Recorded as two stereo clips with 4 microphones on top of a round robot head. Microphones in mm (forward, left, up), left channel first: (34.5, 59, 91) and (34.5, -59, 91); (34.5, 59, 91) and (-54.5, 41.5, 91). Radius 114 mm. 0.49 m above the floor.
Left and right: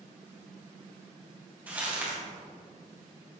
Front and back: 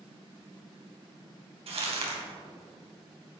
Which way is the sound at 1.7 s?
170° right.